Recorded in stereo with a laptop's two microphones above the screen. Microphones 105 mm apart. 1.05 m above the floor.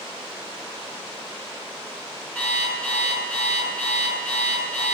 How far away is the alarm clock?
About 5.5 m.